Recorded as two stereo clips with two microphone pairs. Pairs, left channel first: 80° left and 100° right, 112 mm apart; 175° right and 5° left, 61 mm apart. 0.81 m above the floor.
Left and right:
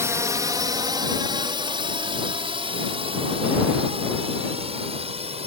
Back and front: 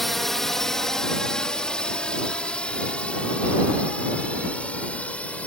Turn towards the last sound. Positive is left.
turn(degrees=-110)